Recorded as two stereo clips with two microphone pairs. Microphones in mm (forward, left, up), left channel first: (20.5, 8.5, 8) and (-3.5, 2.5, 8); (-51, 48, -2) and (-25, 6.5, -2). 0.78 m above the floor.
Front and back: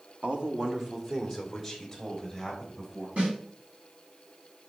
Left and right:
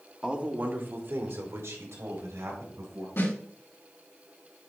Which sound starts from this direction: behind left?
A snare drum, at 3.2 s.